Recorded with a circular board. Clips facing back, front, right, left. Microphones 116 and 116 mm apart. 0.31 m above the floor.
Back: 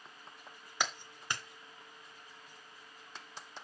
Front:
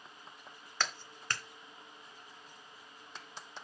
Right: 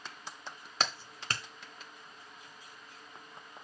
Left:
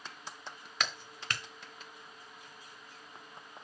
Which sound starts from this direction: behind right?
A clap, at 0.8 s.